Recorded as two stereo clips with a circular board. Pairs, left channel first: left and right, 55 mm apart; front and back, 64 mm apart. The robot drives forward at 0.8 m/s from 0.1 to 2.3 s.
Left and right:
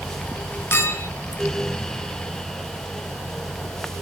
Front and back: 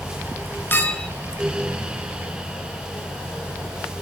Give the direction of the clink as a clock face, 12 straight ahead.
10 o'clock.